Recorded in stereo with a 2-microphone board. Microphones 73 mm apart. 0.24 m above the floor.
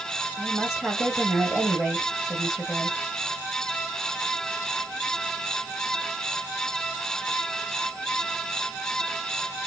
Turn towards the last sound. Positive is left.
turn(degrees=-5)  # may be behind; listen again after turning